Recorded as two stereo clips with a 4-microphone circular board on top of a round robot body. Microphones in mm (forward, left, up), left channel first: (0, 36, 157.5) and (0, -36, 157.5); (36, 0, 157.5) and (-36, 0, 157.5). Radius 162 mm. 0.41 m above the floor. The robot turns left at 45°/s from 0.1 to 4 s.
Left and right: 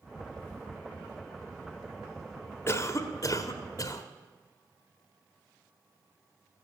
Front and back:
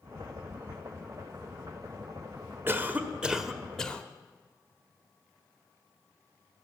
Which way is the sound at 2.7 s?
130° left.